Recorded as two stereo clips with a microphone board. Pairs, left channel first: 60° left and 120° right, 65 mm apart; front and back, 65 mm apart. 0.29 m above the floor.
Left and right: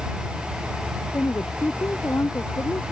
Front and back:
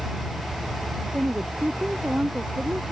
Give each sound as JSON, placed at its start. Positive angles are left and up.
{"t": 1.1, "sound": "a woman speaking", "azimuth_deg": 110}